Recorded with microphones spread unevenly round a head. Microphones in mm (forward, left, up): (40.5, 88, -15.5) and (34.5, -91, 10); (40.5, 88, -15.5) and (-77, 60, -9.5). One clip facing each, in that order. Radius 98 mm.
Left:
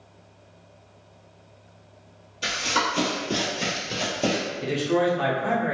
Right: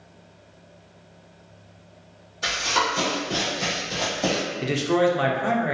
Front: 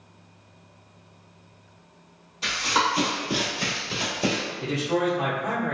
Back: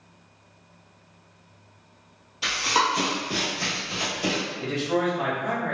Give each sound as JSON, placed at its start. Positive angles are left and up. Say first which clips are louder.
{"t": 2.4, "sound": "running footsteps", "louder": "right 1 dB, back 1 dB", "azimuth_deg": 125, "distance_m": 1.4}
{"t": 4.6, "sound": "a man speaking", "louder": "right 2 dB, even", "azimuth_deg": -65, "distance_m": 0.6}